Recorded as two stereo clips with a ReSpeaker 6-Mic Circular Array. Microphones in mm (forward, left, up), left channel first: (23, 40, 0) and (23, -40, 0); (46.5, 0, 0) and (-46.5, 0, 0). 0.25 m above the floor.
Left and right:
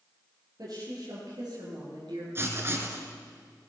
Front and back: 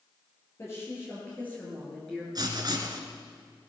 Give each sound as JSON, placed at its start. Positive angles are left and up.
{"t": 0.6, "sound": "a woman speaking", "azimuth_deg": -60, "distance_m": 5.5}
{"t": 2.4, "sound": "writing", "azimuth_deg": -145, "distance_m": 2.0}